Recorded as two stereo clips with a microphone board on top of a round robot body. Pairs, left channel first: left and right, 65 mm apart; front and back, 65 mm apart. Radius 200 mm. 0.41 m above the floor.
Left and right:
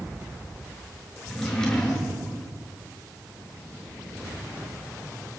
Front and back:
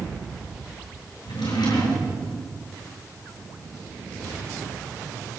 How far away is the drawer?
About 6 m.